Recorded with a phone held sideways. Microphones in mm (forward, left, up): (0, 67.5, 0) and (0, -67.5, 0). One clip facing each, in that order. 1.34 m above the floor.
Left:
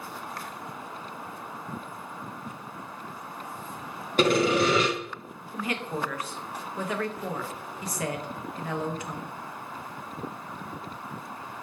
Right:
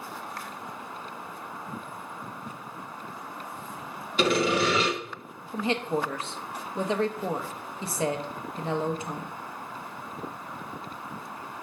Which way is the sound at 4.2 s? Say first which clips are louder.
Left 2 dB; 45° left (ahead or behind).